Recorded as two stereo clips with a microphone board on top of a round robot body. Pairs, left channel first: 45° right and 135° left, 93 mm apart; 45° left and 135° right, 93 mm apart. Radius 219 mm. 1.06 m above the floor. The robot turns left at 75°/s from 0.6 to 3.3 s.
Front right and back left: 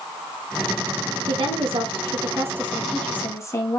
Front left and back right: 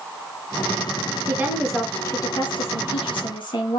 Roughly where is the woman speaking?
Behind.